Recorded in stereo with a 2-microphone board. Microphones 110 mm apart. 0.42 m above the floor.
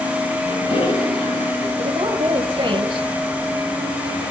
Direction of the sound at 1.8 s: 40° right (ahead or behind).